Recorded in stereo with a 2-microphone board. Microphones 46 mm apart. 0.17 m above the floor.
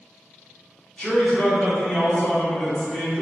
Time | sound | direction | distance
1.0 | a man speaking | 10° left (ahead or behind) | 1.5 m